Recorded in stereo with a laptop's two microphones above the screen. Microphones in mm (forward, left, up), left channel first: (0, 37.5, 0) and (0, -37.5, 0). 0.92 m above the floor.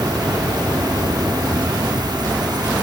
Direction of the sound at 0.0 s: 65° right (ahead or behind).